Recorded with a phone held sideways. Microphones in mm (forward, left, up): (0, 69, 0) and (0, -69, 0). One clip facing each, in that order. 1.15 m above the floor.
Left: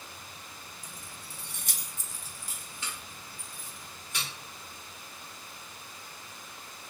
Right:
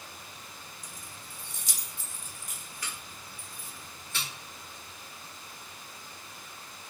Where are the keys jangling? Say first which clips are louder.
Even; 55° left (ahead or behind), 0.6 m; by 4.3 s 15° left (ahead or behind), 2 m.